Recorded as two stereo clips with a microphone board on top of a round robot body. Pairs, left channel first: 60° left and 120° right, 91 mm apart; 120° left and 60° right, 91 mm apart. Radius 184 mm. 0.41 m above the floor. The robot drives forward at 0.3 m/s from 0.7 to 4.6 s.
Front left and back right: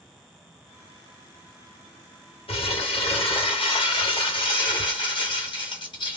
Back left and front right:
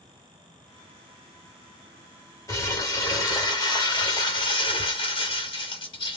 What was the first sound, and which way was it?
Crumpling, 65° left.